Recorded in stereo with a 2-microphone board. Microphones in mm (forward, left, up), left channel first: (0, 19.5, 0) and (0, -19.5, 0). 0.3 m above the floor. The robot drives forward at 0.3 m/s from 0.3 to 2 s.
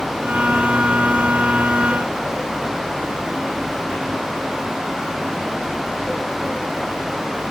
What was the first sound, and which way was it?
Only background noise.